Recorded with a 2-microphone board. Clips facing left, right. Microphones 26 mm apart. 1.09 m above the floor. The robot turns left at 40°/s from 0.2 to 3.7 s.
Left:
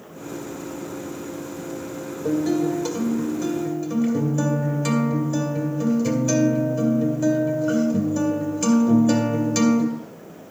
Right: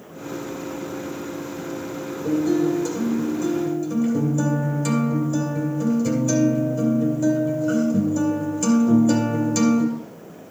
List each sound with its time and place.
2.2 s a guitar: 90° left, 2.5 m; by 9.8 s 35° left, 2.5 m